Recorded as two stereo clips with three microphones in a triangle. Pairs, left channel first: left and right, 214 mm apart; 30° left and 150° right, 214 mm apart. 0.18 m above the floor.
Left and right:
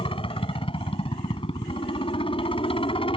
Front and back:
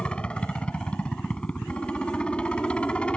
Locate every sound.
0.0 s a helicopter: 110° left